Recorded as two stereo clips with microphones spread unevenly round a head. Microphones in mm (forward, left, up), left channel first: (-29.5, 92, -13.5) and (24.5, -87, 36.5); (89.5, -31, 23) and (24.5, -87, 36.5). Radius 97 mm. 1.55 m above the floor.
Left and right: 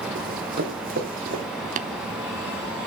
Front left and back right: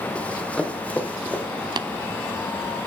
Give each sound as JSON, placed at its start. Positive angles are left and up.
{"t": 0.1, "sound": "running footsteps", "azimuth_deg": -40, "distance_m": 4.0}
{"t": 1.8, "sound": "tapping", "azimuth_deg": -115, "distance_m": 1.0}